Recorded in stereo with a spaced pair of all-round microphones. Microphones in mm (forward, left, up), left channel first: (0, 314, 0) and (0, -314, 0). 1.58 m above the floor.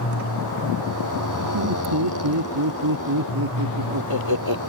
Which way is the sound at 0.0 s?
30° left (ahead or behind).